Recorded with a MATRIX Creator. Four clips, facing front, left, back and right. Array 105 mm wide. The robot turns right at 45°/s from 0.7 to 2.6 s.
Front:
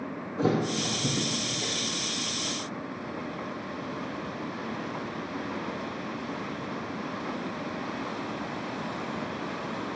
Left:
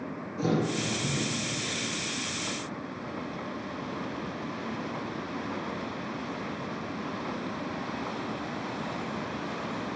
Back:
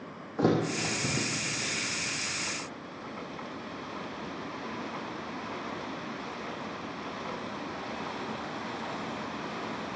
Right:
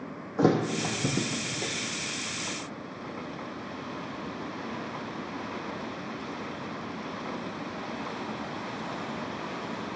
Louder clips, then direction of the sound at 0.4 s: Right 4 dB, even; 115° right.